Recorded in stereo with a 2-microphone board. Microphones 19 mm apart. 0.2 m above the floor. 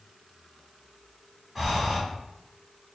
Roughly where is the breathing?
Centre.